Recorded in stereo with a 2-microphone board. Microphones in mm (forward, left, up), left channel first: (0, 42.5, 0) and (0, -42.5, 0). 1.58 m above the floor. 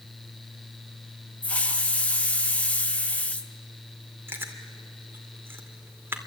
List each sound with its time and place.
1.4 s a hiss: 15° left (ahead or behind), 1.2 m
4.3 s chewing: 25° right (ahead or behind), 2.5 m